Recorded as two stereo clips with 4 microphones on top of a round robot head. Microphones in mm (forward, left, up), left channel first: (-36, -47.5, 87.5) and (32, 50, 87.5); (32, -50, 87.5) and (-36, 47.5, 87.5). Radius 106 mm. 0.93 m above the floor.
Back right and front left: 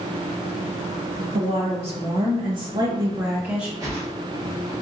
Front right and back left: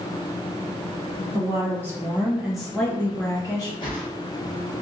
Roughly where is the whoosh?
Ahead.